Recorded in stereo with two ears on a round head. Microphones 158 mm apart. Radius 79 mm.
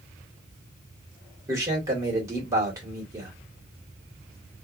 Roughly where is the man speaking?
Centre.